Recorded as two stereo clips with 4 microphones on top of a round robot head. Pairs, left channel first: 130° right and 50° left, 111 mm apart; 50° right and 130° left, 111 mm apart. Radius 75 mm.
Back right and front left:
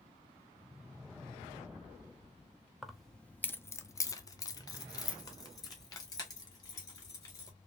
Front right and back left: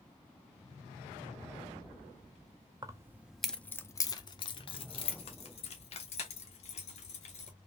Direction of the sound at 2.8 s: 135° left.